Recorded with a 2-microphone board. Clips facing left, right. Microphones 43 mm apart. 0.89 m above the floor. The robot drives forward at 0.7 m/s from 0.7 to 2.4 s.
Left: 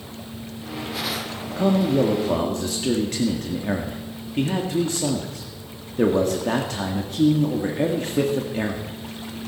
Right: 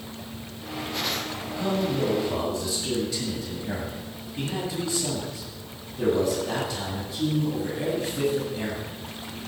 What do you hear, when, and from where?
1.6 s a man speaking: 70° left (ahead or behind), 1.7 m; by 9.0 s 60° left (ahead or behind), 1.8 m